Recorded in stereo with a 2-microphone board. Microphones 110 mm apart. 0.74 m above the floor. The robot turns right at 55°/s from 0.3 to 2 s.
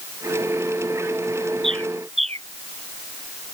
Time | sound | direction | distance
1.6 | a bird | 60° right (ahead or behind) | ?